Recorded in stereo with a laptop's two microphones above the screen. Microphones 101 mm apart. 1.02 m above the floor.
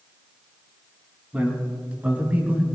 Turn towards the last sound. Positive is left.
turn(degrees=-15)  # may be behind; listen again after turning